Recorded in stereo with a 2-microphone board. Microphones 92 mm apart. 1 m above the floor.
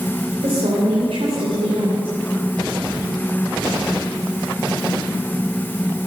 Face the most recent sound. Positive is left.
turn(degrees=-75)  # may be behind; listen again after turning